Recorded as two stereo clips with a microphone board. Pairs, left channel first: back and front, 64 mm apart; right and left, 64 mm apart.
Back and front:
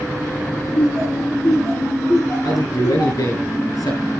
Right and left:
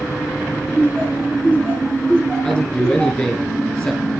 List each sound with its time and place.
0.8 s laughter: 155° left, 8.5 m; by 3.3 s 140° left, 6.5 m
2.4 s a man speaking: 170° right, 5.5 m